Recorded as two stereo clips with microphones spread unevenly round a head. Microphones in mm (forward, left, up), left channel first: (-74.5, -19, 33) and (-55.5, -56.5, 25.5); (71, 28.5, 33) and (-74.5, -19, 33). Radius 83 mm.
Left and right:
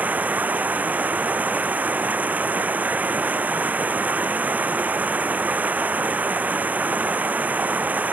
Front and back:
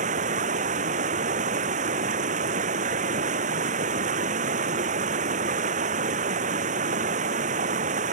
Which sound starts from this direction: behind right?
Running water, at 0.0 s.